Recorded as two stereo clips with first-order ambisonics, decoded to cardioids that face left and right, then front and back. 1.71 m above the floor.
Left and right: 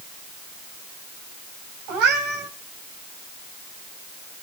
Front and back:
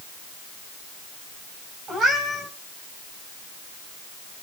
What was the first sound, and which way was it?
A cat meowing, 115° right.